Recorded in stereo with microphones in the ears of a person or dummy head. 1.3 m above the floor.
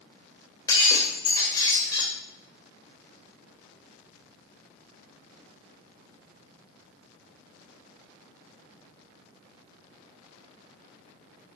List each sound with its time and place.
0.7 s breaking glass: 20° left (ahead or behind), 1.8 m